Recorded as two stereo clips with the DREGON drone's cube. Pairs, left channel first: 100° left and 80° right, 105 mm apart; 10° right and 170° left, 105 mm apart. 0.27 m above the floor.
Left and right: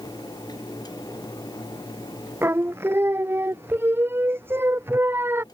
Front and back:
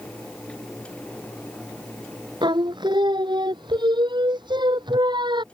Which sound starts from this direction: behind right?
Singing, at 2.4 s.